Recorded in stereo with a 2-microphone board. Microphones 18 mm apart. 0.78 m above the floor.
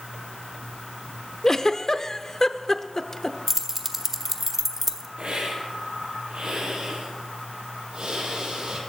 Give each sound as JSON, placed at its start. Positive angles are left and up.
{"t": 1.4, "sound": "a giggle", "side_deg": 35, "distance_m": 0.7}
{"t": 3.5, "sound": "keys jangling", "side_deg": -15, "distance_m": 1.2}
{"t": 5.2, "sound": "a hiss", "side_deg": -65, "distance_m": 7.0}